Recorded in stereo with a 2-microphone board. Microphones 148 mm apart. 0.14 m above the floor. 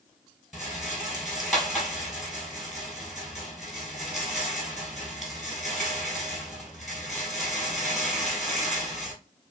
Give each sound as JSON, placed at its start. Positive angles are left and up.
{"t": 0.5, "sound": "a rattle", "side_deg": 0, "distance_m": 1.0}